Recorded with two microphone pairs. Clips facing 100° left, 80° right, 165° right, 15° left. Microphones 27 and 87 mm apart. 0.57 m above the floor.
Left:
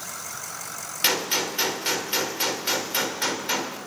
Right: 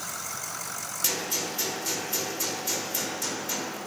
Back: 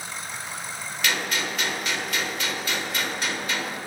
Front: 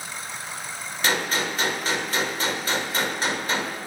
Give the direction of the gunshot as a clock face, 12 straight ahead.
10 o'clock.